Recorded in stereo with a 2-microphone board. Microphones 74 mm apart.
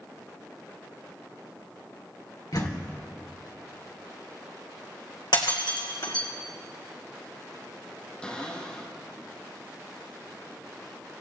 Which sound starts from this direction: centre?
A cupboard door, at 8.2 s.